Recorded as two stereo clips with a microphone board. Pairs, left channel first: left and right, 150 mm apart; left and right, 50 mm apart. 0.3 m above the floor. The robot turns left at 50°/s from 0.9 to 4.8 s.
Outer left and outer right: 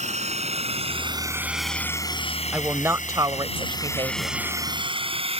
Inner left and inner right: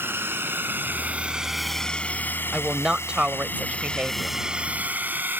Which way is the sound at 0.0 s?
50° right (ahead or behind).